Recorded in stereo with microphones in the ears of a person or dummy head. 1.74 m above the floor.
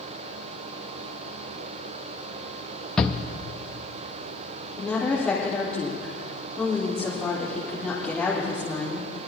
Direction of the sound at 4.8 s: 5° left (ahead or behind).